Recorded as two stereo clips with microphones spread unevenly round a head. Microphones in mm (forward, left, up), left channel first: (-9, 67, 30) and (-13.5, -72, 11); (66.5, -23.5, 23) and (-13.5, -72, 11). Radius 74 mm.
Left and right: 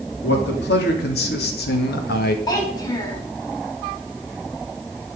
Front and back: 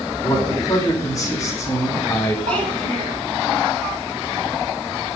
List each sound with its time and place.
0.2 s a man speaking: 100° left, 3.5 m; by 2.4 s 110° left, 2.0 m
2.5 s a child speaking: 150° left, 5 m